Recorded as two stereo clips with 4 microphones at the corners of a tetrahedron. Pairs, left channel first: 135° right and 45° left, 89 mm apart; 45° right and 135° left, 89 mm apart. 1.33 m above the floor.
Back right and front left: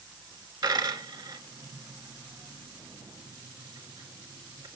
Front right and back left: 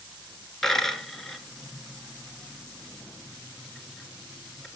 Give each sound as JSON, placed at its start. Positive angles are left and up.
{"t": 0.6, "sound": "a dropped coin", "azimuth_deg": 40, "distance_m": 1.9}